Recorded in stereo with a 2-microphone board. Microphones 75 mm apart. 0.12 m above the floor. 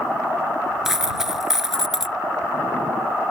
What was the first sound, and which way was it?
A dropped coin, 5° right (ahead or behind).